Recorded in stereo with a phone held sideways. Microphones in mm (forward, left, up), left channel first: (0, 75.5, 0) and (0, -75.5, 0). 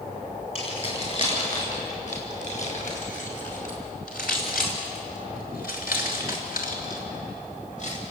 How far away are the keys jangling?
About 8.5 m.